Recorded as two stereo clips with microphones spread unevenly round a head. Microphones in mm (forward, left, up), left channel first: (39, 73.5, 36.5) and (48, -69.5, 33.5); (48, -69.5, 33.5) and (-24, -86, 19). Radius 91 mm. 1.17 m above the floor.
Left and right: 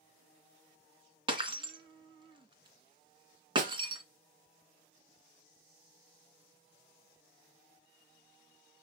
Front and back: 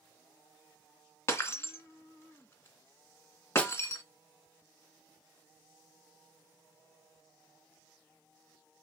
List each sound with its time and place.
1.3 s breaking glass: 30° right, 2 m
3.6 s a snare drum: 55° right, 1.6 m